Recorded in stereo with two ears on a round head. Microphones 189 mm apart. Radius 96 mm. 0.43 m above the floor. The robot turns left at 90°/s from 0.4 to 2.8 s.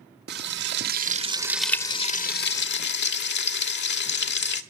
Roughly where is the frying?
Right.